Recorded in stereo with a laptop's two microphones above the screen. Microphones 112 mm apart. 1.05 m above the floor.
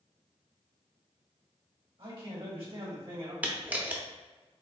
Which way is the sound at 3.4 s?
15° right (ahead or behind).